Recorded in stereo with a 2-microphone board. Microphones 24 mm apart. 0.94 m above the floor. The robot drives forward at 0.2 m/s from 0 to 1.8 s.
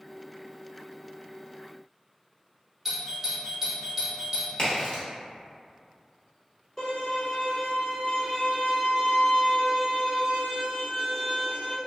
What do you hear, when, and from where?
2.9 s a doorbell: 10° right (ahead or behind), 1.0 m
4.6 s a crack: 35° left (ahead or behind), 1.0 m
6.8 s a violin: 30° left (ahead or behind), 1.4 m